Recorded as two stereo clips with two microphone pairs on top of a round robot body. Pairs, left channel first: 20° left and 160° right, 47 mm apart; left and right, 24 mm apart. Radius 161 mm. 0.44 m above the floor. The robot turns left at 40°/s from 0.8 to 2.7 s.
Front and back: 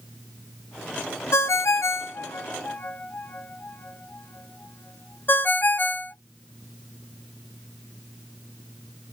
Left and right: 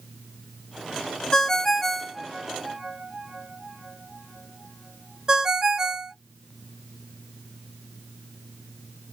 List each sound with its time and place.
1.3 s a ringtone: 30° left, 0.6 m; by 6.1 s 25° right, 0.6 m